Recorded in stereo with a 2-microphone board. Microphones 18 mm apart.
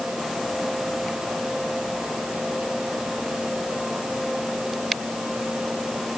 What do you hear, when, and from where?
Only background noise.